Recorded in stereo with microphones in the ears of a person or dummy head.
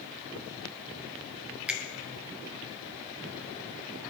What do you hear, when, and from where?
1.7 s a finger snap: 5° right (ahead or behind), 0.5 m